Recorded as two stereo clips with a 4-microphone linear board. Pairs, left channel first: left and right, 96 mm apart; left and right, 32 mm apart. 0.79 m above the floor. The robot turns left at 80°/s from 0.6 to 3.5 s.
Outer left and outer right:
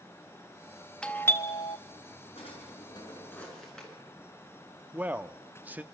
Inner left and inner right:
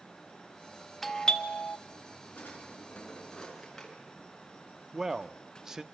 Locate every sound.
1.0 s a doorbell: 170° left, 1.2 m; by 1.8 s 110° left, 1.2 m
2.4 s a drawer: 95° left, 6.5 m; by 3.9 s 5° left, 6.5 m
4.9 s a man speaking: 15° right (ahead or behind), 1.0 m